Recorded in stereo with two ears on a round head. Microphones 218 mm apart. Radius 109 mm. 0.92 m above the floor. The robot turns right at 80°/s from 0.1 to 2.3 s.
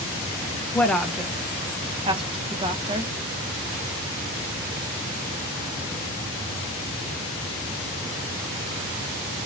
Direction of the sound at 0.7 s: 10° left (ahead or behind).